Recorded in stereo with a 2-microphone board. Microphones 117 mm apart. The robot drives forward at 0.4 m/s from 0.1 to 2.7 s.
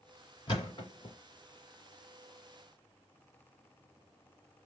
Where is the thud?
40° left (ahead or behind), 1.5 m; by 1.1 s 50° left (ahead or behind), 1.3 m.